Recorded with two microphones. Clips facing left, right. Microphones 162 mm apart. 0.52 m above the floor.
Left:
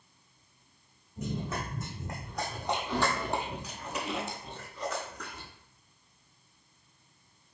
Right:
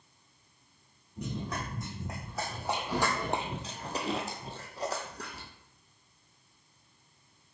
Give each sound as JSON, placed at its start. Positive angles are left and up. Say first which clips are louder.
{"t": 1.2, "sound": "running footsteps", "louder": "left 2 dB", "side_deg": 5, "distance_m": 1.6}